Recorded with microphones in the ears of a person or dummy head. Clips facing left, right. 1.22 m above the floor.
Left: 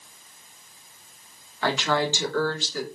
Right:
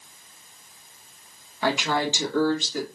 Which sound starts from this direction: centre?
A woman speaking, at 1.6 s.